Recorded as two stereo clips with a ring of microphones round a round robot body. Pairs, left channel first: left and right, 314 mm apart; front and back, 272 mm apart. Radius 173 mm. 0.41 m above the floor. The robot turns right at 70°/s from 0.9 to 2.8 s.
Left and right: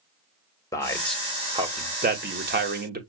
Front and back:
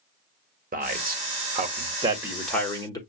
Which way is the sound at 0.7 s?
160° left.